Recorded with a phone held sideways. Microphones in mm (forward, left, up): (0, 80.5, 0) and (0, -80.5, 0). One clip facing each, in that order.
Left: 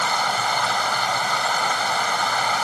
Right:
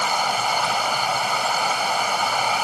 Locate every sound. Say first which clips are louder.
0.0 s running water: right 1 dB; 10° right (ahead or behind)